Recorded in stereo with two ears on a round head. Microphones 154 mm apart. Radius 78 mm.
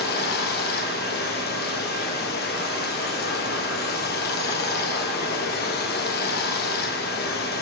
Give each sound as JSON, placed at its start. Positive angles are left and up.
{"t": 0.0, "sound": "running water", "side_deg": 60, "distance_m": 1.1}